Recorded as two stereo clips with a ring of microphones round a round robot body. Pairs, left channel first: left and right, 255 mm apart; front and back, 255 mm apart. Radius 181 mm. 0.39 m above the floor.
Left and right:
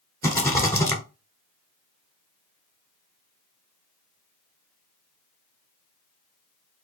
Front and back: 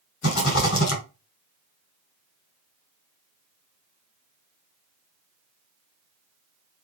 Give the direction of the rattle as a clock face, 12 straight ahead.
11 o'clock.